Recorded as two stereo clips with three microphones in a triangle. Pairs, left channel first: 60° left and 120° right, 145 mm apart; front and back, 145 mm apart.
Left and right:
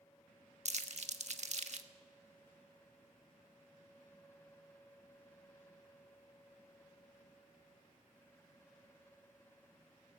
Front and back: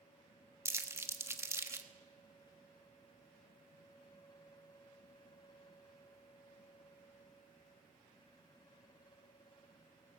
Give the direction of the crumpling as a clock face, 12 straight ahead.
4 o'clock.